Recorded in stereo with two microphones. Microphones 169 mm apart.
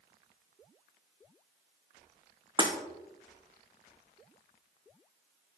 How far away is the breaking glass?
About 2.5 m.